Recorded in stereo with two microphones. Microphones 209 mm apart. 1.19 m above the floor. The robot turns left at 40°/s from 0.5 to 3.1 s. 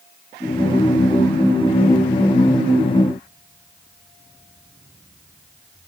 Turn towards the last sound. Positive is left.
No sound to turn to.